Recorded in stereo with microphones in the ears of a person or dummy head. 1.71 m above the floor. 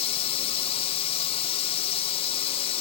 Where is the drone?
35° left (ahead or behind).